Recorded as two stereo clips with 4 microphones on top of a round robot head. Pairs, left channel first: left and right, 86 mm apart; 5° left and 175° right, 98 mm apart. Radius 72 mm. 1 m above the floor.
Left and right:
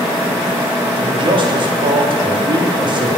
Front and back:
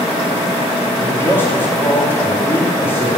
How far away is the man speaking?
About 3 m.